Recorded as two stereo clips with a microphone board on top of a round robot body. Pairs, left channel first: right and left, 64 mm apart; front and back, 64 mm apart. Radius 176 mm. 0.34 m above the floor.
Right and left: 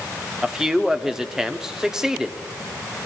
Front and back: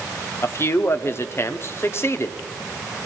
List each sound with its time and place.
0.4 s a man speaking: 15° left, 1.0 m